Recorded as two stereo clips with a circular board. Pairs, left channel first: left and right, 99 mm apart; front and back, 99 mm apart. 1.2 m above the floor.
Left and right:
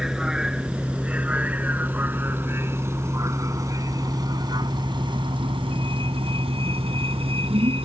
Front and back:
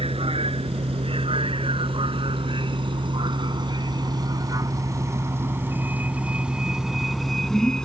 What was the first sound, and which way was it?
A vehicle, 175° right.